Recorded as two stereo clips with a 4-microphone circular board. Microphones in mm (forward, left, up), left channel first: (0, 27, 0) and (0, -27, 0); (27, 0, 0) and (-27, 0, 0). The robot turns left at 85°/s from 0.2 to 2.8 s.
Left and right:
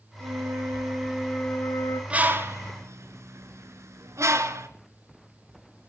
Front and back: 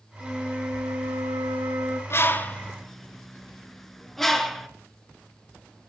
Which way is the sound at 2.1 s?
25° right.